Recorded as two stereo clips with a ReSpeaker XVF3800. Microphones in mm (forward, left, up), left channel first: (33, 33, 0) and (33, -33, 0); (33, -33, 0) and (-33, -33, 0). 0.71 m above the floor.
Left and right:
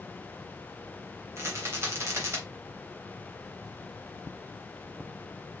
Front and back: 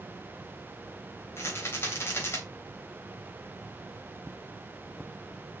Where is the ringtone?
I don't hear a ringtone.